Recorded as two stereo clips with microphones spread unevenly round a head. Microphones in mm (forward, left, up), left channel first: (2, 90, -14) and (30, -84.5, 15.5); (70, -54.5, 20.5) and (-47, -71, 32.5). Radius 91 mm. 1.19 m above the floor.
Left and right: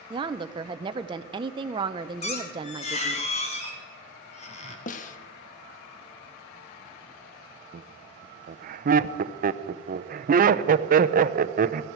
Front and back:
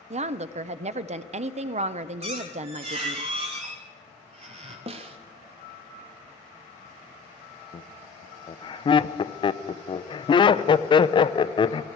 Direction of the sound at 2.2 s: 155° left.